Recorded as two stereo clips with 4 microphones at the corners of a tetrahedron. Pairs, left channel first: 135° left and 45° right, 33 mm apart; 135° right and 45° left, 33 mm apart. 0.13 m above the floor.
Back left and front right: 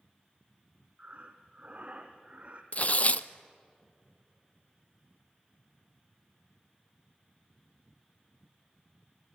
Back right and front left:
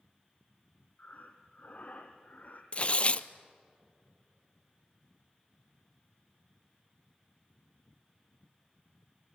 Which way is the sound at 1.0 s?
100° right.